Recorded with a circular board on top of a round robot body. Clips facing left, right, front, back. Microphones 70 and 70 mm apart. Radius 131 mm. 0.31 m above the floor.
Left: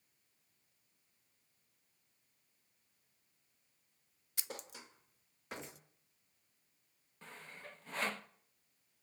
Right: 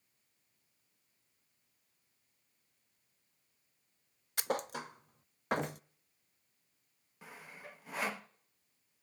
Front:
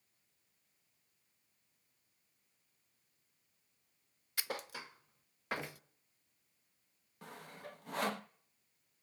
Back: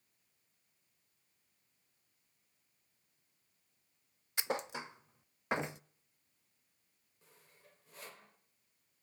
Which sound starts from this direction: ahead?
Sawing, at 7.2 s.